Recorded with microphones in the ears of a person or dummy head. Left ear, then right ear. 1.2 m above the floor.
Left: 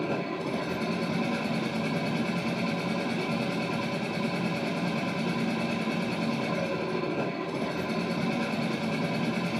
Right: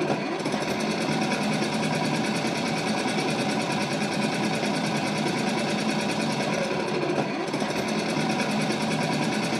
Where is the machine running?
65° right (ahead or behind), 0.8 m.